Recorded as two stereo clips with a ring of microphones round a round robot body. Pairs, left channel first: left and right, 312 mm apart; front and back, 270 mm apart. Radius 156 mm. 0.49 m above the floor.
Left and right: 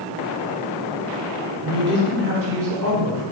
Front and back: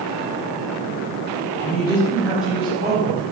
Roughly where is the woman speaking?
Ahead right.